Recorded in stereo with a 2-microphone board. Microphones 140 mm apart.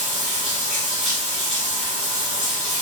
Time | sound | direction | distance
0.0 | running water | 60° right (ahead or behind) | 1.5 m